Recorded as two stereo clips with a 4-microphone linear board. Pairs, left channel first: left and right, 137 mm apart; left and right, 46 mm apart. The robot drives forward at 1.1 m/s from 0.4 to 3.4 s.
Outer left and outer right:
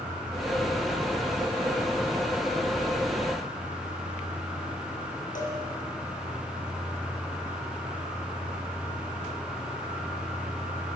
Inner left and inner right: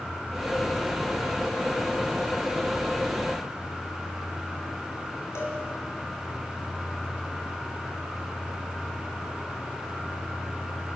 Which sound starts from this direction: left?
A cowbell, at 5.3 s.